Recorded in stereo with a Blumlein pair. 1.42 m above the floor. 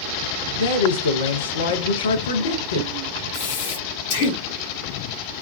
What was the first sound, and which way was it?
A man speaking, 65° left.